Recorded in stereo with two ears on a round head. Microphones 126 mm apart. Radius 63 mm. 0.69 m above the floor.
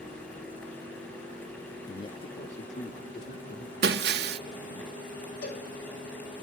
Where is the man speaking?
25° left (ahead or behind), 0.8 m; by 4.8 s 70° left (ahead or behind), 2.5 m.